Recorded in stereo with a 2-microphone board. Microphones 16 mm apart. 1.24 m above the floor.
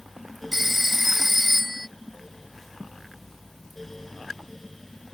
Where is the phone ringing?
5° right (ahead or behind).